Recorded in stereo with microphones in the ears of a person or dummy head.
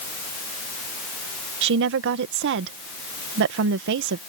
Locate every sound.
1.6 s a woman speaking: 65° right (ahead or behind)